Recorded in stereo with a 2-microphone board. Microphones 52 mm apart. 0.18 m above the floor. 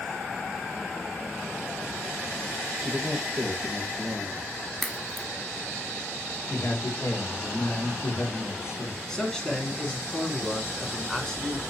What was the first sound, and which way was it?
A man speaking, 10° right (ahead or behind).